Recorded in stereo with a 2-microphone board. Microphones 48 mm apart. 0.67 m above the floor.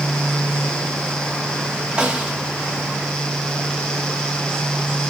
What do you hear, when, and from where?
2.0 s a snare drum: 25° right (ahead or behind), 1.4 m